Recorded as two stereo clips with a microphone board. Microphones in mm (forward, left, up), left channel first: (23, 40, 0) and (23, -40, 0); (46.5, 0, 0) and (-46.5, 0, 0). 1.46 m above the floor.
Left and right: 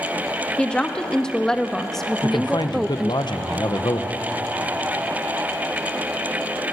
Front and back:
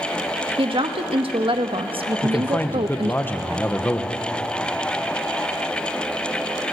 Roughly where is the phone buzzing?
I don't hear a phone buzzing.